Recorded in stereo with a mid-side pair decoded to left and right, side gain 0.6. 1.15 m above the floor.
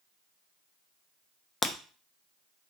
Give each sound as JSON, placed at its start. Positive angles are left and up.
{"t": 1.6, "sound": "breaking glass", "azimuth_deg": 15, "distance_m": 0.7}